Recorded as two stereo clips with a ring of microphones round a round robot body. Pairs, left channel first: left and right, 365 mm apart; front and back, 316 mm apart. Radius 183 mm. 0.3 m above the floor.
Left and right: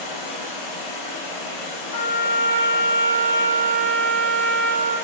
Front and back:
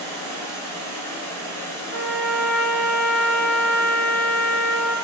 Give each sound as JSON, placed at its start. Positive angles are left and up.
{"t": 0.0, "sound": "running water", "azimuth_deg": 85, "distance_m": 1.2}
{"t": 1.9, "sound": "a trumpet", "azimuth_deg": 55, "distance_m": 1.1}